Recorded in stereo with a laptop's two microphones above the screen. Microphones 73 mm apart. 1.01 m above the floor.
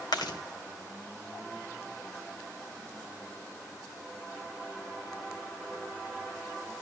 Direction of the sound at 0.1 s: 75° left (ahead or behind).